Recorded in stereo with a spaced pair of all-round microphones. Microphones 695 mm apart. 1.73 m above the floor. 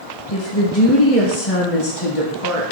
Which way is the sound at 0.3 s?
50° left (ahead or behind).